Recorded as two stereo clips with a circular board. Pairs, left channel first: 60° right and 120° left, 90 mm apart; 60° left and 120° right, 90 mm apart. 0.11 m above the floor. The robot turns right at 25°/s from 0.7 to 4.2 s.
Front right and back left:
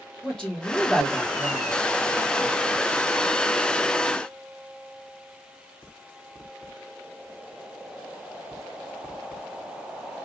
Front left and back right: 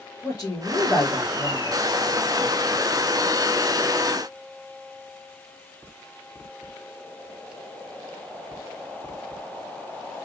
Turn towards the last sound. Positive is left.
turn(degrees=100)